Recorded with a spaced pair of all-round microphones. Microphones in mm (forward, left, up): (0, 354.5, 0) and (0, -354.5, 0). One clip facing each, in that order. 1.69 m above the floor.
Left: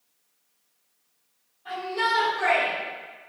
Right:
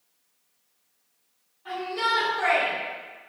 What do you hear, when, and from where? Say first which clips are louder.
1.6 s a shout: left 1 dB; 25° right (ahead or behind), 1.9 m; by 3.3 s 45° right (ahead or behind), 3 m